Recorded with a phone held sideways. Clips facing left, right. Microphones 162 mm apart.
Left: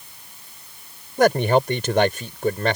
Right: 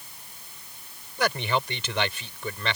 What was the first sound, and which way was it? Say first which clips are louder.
A man speaking: left 10 dB; 50° left (ahead or behind).